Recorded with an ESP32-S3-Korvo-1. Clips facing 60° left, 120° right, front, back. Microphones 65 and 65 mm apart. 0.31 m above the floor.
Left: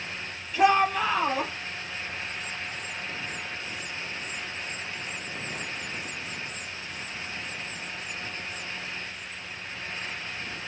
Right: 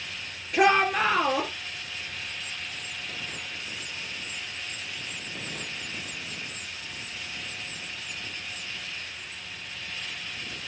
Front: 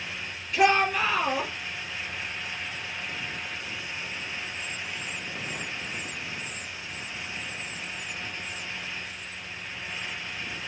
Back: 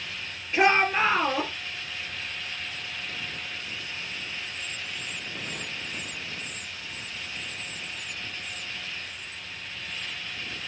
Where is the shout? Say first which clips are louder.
Even, even; 125° right, 4.5 m.